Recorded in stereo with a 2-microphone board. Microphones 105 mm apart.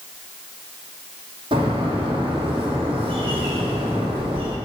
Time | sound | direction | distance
1.5 | a bird | 55° right (ahead or behind) | 3 m